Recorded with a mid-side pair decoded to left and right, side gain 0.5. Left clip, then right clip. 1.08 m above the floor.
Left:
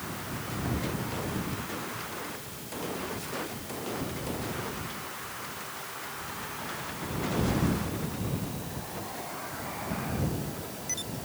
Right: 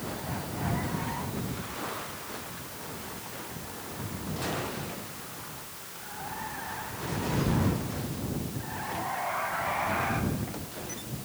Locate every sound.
Only background noise.